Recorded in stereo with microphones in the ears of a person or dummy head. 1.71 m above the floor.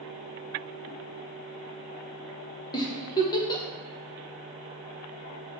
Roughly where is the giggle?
Left.